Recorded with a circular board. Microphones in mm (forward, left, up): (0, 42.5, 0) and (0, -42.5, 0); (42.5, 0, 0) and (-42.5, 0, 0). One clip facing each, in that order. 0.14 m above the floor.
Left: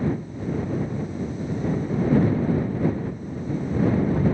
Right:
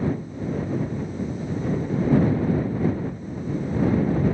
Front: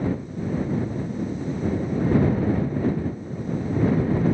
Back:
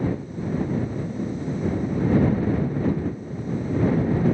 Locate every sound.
Only background noise.